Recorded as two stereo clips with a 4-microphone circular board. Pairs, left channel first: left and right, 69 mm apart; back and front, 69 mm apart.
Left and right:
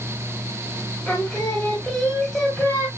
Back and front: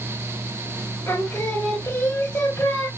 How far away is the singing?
About 1.5 m.